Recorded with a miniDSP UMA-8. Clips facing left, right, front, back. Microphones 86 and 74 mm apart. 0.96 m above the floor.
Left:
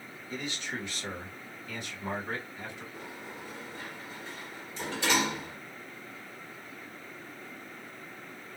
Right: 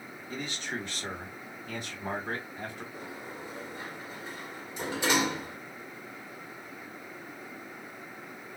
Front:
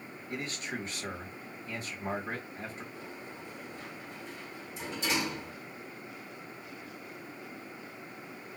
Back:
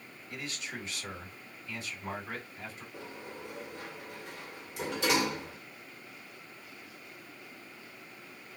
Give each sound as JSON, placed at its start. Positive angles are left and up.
{"t": 0.3, "sound": "a man speaking", "azimuth_deg": -40, "distance_m": 2.0}
{"t": 2.9, "sound": "a sliding door", "azimuth_deg": -160, "distance_m": 1.9}